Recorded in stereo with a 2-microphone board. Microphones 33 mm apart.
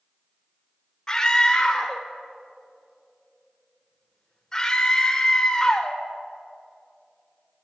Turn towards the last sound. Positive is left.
turn(degrees=15)  # may be behind; listen again after turning